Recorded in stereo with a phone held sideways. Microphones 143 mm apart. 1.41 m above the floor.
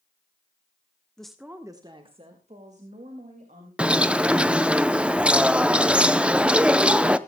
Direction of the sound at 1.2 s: 5° left (ahead or behind).